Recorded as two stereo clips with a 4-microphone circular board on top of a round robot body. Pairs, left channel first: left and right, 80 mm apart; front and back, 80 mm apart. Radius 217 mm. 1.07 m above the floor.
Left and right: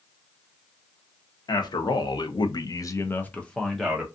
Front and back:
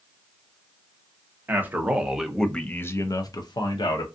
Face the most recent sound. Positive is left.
turn(degrees=-5)